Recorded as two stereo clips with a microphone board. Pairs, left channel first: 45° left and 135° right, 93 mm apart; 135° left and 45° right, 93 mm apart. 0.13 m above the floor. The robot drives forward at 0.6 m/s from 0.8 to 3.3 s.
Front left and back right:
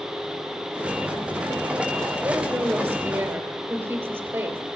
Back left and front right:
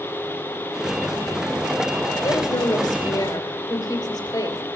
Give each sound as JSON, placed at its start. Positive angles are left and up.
{"t": 2.2, "sound": "a woman speaking", "azimuth_deg": 160, "distance_m": 3.0}